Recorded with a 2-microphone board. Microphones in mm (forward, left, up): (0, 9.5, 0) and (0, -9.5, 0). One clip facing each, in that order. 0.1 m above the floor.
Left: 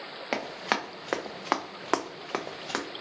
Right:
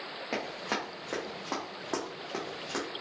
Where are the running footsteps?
45° left (ahead or behind), 1.0 m; by 2.9 s 30° left (ahead or behind), 0.8 m.